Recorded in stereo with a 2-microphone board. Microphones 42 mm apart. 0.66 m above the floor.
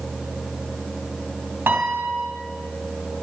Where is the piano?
65° right (ahead or behind), 2.5 m.